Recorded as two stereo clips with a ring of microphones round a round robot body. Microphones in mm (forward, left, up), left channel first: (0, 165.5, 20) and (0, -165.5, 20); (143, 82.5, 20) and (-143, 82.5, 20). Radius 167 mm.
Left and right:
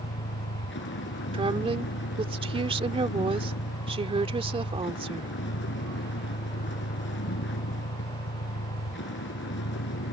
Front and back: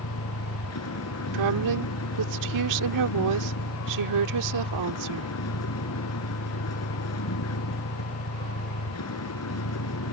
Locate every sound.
0.0 s a vehicle: 30° left
1.3 s a woman speaking: 165° right